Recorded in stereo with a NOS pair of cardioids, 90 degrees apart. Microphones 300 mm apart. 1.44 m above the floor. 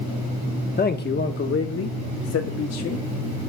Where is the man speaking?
30° left, 1.5 m; by 3.0 s 60° left, 2.5 m.